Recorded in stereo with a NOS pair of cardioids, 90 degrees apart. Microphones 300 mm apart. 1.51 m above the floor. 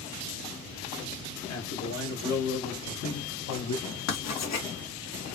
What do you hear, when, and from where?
1.5 s a man speaking: 60° left, 3 m; by 4.0 s 70° left, 1.5 m
4.1 s writing: 60° left, 2.5 m